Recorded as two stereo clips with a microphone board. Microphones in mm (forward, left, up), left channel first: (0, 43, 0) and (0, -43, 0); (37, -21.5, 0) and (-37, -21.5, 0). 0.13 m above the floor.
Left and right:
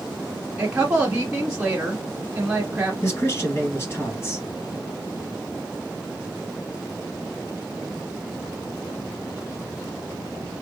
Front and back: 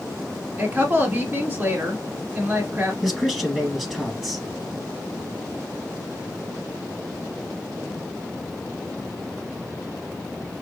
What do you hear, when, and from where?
0.6 s a woman speaking: 145° right, 1.3 m
3.0 s a man speaking: 100° left, 1.4 m